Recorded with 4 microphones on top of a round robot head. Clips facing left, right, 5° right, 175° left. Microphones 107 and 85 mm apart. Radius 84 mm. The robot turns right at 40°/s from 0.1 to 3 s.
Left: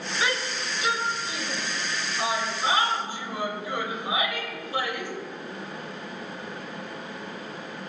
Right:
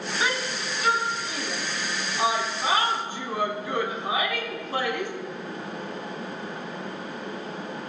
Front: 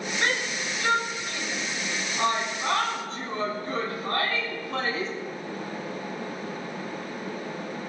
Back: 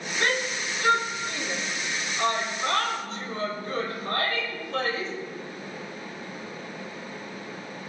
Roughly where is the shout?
Behind right.